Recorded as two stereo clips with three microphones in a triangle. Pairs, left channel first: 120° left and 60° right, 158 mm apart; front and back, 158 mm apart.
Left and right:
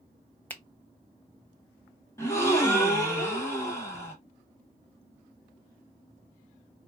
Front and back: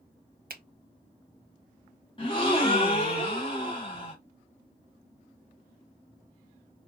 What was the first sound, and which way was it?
A finger snap, 160° right.